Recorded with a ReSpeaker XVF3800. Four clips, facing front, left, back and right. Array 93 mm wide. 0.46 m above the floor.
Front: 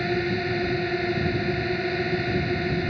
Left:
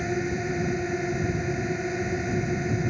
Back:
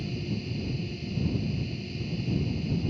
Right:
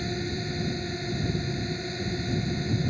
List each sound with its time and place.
0.0 s a drone: 25° left